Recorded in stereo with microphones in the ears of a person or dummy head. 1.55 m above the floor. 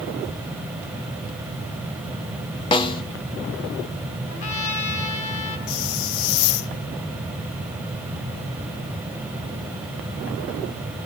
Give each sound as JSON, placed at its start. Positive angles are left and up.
{"t": 2.7, "sound": "a snare drum", "side_deg": 30, "distance_m": 1.2}
{"t": 4.3, "sound": "a trumpet", "side_deg": 80, "distance_m": 6.0}
{"t": 5.7, "sound": "a hiss", "side_deg": 65, "distance_m": 0.7}